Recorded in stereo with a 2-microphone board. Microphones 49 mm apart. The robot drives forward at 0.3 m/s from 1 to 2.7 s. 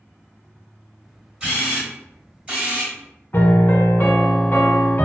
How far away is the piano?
About 0.5 m.